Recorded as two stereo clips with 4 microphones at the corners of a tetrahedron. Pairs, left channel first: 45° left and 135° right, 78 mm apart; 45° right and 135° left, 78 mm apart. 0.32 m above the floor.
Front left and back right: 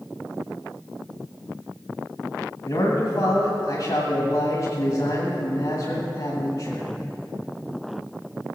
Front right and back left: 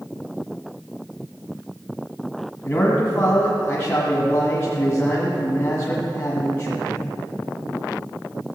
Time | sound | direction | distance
2.6 | a man speaking | 5° left | 1.8 m